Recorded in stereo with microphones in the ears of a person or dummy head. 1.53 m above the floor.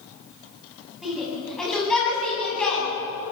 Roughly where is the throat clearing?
No throat clearing in this recording.